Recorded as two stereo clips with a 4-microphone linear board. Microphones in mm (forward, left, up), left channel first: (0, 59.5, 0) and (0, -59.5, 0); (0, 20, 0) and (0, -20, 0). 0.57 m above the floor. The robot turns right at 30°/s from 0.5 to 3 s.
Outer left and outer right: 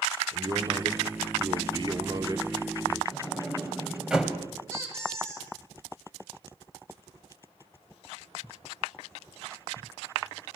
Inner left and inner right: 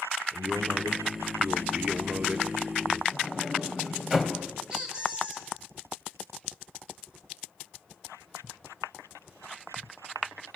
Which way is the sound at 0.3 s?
105° right.